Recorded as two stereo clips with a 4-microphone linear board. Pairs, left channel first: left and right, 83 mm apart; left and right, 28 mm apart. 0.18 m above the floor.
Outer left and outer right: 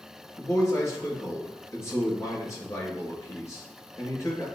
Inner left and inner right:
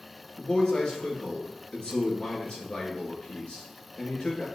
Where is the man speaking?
35° left (ahead or behind), 3 m.